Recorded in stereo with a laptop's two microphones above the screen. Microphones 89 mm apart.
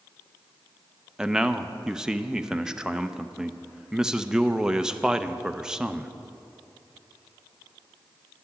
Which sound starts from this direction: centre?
A man speaking, at 1.2 s.